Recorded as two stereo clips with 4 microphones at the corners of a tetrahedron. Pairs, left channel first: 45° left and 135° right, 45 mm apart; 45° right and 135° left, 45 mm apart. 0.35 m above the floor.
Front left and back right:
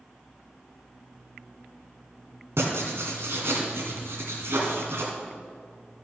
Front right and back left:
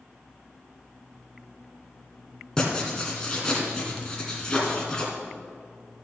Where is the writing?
120° right, 1.9 m.